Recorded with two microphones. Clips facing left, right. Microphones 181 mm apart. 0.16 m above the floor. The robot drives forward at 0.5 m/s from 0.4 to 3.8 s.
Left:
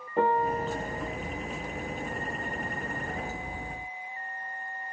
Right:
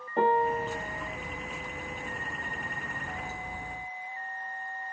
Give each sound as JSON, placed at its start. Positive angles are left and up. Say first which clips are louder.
{"t": 0.2, "sound": "a piano", "louder": "even", "side_deg": 0, "distance_m": 2.5}